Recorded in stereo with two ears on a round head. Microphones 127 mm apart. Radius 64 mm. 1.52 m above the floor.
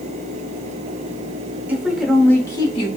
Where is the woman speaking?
10° right (ahead or behind), 1.1 m; by 2.9 s 40° left (ahead or behind), 1.0 m.